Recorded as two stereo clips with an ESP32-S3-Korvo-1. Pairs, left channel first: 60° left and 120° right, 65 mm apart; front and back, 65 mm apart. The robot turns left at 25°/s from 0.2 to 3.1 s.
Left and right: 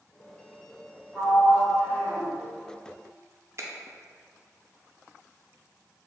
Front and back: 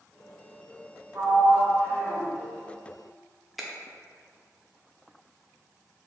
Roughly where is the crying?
I don't hear crying.